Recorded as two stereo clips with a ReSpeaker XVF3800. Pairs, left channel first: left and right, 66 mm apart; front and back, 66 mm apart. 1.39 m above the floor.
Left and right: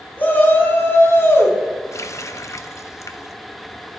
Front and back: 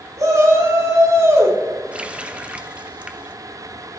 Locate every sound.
0.2 s a shout: 150° left, 4 m; by 1.6 s 135° left, 3.5 m
1.9 s a running tap: 110° left, 0.8 m